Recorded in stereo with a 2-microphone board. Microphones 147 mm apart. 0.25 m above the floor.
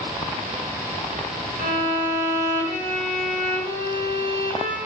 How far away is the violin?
About 1.9 m.